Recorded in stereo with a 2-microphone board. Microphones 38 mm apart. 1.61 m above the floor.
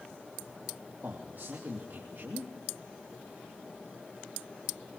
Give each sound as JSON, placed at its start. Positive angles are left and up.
{"t": 1.0, "sound": "a man speaking", "side_deg": -55, "distance_m": 3.0}